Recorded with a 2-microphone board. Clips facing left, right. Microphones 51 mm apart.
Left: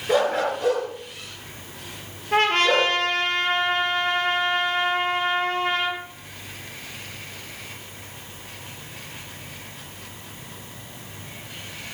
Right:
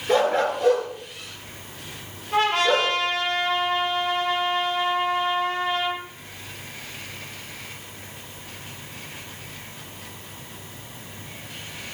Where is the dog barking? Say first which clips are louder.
Right 1 dB; 5° left (ahead or behind), 4 m; by 2.9 s 10° left (ahead or behind), 5.5 m.